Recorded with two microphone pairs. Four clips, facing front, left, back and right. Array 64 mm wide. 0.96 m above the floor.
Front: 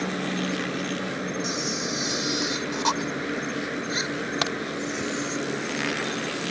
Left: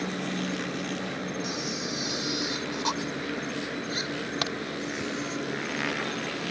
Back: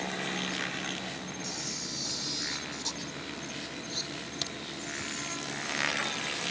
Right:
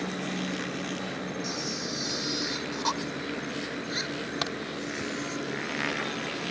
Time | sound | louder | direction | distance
0.0 | an insect | left 1 dB, front 7 dB | straight ahead | ?
1.4 | a camera shutter | left 1 dB, front 11 dB | 10° right | ?
4.4 | a crack | left 1 dB, front 13 dB | 5° right | ?